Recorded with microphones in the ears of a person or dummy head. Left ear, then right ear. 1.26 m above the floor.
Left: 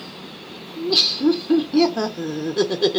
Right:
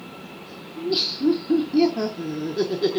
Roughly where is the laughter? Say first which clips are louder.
Left 5 dB; left.